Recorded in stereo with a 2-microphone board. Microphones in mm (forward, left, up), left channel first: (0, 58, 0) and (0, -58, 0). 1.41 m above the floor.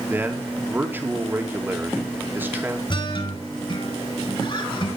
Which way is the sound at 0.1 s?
15° right (ahead or behind).